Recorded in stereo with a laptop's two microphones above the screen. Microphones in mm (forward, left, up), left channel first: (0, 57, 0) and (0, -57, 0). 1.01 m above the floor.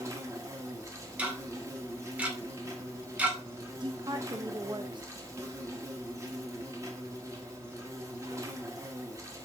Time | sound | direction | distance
0.0 | an insect | 30° right (ahead or behind) | 1.1 m
1.2 | ticking | 10° right (ahead or behind) | 2 m
3.8 | a woman speaking | 40° right (ahead or behind) | 0.8 m